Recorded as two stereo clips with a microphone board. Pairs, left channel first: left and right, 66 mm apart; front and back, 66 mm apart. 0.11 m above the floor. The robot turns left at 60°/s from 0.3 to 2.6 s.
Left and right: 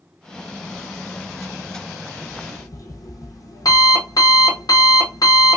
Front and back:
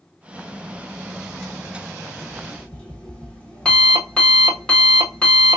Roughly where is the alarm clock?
Left.